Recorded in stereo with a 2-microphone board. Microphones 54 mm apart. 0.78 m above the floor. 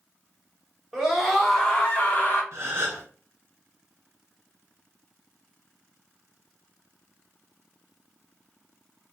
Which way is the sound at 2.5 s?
50° right (ahead or behind).